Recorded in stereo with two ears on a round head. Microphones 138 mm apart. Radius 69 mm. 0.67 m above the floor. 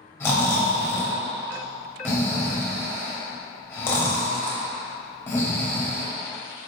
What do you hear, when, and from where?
0.2 s snoring: 15° left (ahead or behind), 0.8 m